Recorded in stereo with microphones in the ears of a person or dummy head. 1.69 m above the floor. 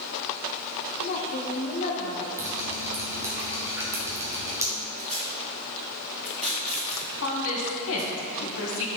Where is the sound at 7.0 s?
75° left (ahead or behind), 1.5 m.